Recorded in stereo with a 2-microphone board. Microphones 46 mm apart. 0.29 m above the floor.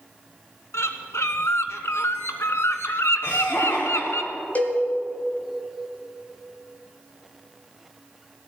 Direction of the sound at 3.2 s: 60° left (ahead or behind).